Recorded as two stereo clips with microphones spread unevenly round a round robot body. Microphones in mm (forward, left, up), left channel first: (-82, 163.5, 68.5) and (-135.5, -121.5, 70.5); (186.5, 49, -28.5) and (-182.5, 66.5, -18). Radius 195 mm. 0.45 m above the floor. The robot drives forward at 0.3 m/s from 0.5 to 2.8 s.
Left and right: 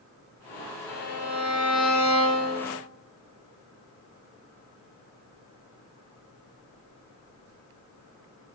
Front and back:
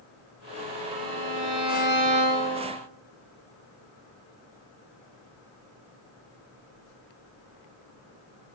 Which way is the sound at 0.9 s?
135° left.